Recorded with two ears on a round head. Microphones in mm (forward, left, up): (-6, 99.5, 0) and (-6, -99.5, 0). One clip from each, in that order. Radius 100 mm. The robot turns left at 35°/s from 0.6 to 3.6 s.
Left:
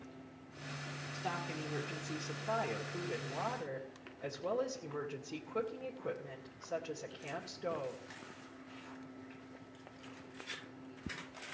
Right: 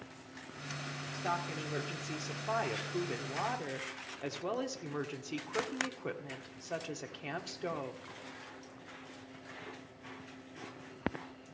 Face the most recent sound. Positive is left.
turn(degrees=-90)